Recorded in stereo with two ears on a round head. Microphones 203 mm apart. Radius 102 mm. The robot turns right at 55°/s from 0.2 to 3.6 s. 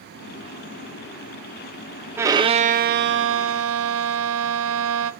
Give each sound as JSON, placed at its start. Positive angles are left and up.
{"t": 2.2, "sound": "a violin", "azimuth_deg": -170, "distance_m": 0.8}